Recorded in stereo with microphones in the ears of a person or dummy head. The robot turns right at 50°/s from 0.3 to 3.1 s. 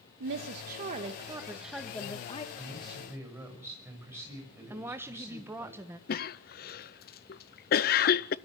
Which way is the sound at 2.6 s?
15° left (ahead or behind).